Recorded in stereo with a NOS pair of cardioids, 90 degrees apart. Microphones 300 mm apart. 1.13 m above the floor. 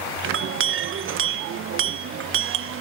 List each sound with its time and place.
0.2 s a clink: 45° right, 0.6 m